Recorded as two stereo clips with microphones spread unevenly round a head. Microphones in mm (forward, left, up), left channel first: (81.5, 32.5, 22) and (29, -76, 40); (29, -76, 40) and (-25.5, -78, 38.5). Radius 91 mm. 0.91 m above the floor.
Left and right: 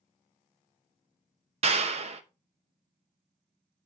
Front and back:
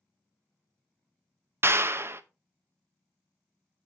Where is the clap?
150° right, 0.8 m.